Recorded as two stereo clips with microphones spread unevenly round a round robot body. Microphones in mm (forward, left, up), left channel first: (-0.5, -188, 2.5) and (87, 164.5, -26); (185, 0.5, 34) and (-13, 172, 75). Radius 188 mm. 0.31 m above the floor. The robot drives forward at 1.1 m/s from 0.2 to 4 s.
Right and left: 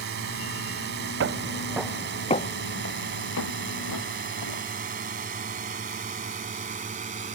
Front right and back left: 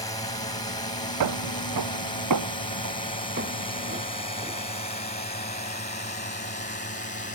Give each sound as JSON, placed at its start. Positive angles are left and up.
{"t": 0.0, "sound": "a drone", "azimuth_deg": 25}
{"t": 1.2, "sound": "footsteps", "azimuth_deg": 135}